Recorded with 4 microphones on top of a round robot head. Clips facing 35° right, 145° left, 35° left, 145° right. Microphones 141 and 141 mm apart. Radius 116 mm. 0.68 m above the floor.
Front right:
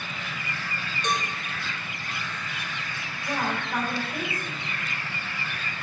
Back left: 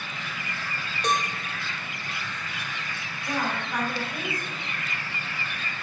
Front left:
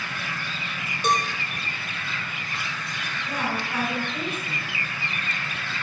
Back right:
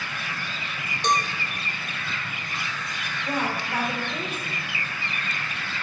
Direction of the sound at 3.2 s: 120° right.